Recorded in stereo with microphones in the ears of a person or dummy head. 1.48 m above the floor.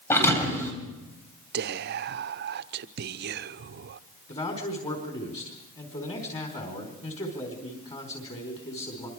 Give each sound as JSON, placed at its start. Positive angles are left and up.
{"t": 0.1, "sound": "a thud", "side_deg": 15, "distance_m": 4.0}
{"t": 1.5, "sound": "whispering", "side_deg": -60, "distance_m": 0.8}
{"t": 4.3, "sound": "a man speaking", "side_deg": 35, "distance_m": 4.0}